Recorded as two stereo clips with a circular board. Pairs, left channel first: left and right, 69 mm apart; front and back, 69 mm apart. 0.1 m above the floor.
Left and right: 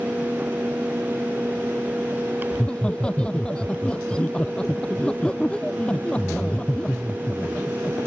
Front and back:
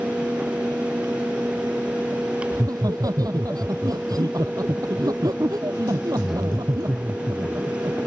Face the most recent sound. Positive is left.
turn(degrees=165)